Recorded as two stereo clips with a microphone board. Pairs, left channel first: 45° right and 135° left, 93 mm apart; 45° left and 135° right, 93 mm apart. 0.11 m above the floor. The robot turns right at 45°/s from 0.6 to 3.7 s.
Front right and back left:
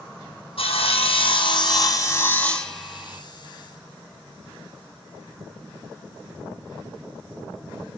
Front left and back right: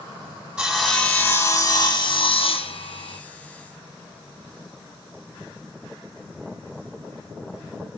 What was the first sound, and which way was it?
Sawing, 60° right.